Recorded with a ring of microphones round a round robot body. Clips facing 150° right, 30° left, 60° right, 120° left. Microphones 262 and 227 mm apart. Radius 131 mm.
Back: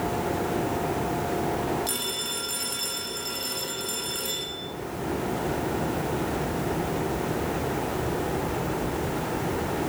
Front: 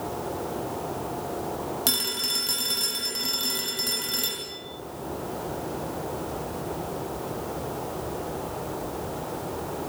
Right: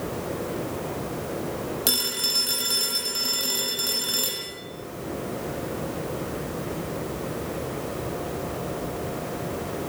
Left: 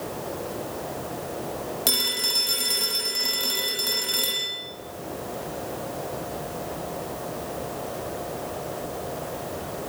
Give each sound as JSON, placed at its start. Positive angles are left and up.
{"t": 1.9, "sound": "a phone ringing", "azimuth_deg": 20, "distance_m": 8.5}